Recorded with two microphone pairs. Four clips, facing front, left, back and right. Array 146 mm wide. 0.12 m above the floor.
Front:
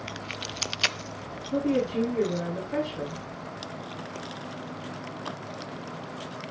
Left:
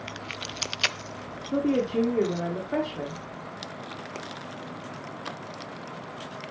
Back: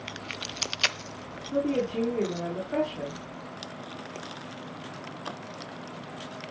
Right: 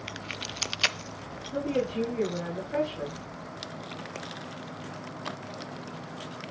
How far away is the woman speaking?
About 5 m.